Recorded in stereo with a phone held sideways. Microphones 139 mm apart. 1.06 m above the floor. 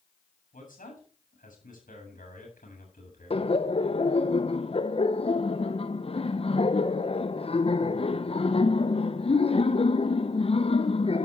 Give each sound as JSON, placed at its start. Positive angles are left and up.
{"t": 0.5, "sound": "a man speaking", "side_deg": 75, "distance_m": 8.0}
{"t": 3.3, "sound": "laughter", "side_deg": 45, "distance_m": 0.7}